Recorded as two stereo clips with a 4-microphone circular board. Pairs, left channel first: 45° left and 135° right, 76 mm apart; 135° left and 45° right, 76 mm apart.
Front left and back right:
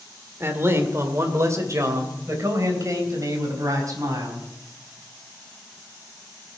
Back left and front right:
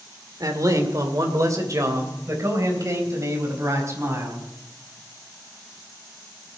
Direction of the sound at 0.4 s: 80° right.